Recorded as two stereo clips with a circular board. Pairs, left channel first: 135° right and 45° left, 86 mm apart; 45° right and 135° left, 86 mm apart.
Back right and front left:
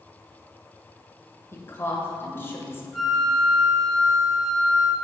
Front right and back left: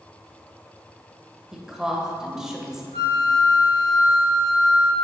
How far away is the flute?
About 1.0 m.